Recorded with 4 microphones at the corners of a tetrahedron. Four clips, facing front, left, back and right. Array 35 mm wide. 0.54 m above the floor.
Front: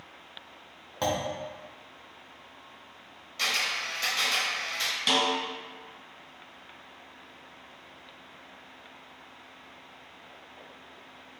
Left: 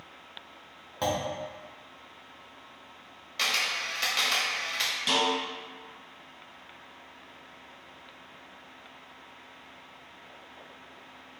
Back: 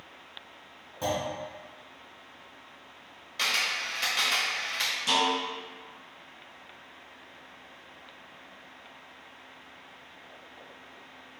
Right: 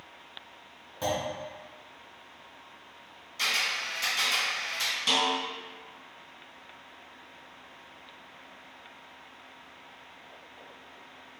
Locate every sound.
1.0 s a clunk: 30° left, 0.7 m
3.4 s a camera shutter: 120° left, 1.0 m
5.1 s a snare drum: straight ahead, 1.8 m